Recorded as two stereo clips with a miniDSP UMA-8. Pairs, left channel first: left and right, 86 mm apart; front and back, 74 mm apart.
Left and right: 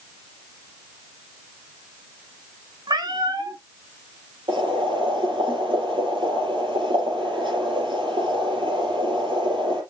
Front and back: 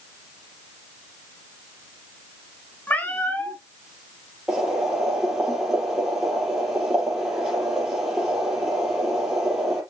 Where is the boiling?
95° right, 4.5 m.